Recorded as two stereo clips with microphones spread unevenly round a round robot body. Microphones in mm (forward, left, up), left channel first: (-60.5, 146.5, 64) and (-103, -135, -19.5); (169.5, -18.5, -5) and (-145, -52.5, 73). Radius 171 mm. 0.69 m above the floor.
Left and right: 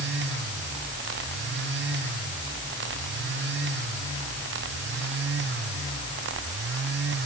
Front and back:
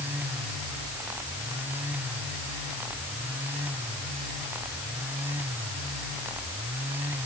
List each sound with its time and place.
Only background noise.